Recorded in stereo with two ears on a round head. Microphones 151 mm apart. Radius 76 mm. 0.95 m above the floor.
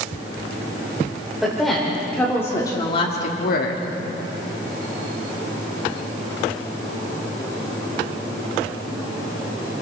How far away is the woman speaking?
About 3.5 m.